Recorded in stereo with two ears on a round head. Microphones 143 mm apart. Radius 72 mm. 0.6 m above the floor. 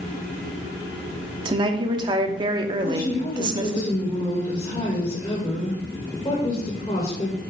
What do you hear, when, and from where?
1.4 s a woman speaking: 30° right (ahead or behind), 0.9 m
2.8 s a woman speaking: 25° left (ahead or behind), 2 m